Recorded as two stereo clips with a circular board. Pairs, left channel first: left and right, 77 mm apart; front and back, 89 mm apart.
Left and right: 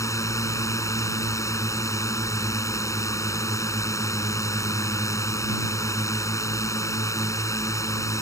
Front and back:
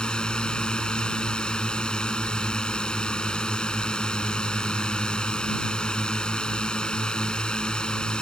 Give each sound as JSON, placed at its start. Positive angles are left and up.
{"t": 0.0, "sound": "a drone", "azimuth_deg": 75}